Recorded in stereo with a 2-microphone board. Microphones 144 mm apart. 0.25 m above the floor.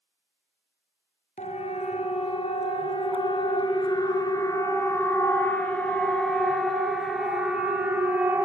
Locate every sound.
1.4 s a siren: 55° left (ahead or behind), 4.5 m; by 8.4 s 15° right (ahead or behind), 5 m